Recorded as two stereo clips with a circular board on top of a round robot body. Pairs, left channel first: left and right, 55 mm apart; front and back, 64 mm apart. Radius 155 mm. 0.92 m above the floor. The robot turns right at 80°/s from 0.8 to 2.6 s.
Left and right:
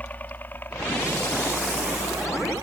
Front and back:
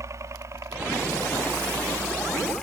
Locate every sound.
0.0 s a helicopter: 150° left; by 2.6 s 85° right